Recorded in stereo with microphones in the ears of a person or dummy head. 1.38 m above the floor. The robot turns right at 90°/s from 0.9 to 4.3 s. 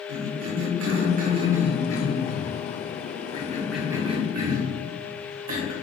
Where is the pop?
I don't hear a pop.